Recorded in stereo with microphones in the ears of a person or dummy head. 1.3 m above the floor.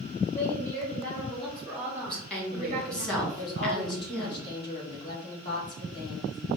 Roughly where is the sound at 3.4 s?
Left.